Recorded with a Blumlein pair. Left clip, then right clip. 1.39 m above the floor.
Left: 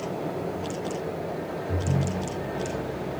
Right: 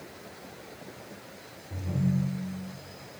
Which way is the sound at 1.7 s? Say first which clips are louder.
Left 1 dB; 45° left.